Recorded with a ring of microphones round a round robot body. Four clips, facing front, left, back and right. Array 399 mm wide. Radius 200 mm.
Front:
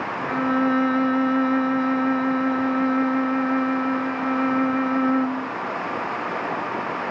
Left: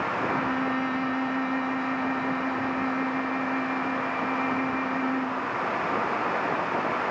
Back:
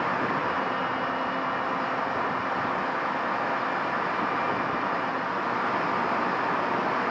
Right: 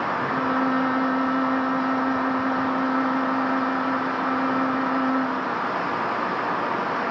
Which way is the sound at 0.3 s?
20° right.